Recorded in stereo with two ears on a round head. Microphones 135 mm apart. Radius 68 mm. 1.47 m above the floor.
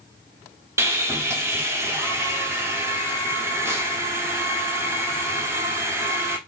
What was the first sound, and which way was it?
Sawing, 20° right (ahead or behind).